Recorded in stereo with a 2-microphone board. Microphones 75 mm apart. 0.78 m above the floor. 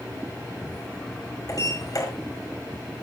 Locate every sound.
1.5 s a sliding door: 50° left (ahead or behind), 6.5 m